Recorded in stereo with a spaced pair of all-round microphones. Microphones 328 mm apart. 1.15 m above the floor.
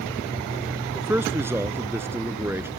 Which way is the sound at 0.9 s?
5° right (ahead or behind).